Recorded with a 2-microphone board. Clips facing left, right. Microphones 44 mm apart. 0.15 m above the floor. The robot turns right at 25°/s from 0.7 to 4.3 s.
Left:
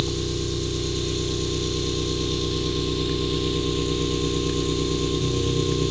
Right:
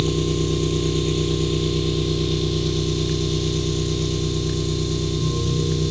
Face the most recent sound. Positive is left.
turn(degrees=40)